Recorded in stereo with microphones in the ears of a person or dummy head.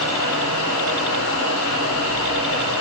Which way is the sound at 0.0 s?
85° left.